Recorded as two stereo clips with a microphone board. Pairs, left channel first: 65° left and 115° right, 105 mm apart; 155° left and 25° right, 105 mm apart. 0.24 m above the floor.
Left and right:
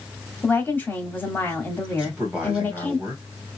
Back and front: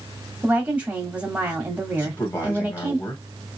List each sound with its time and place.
0.4 s a woman speaking: 30° left, 1.0 m
2.0 s a man speaking: straight behind, 1.1 m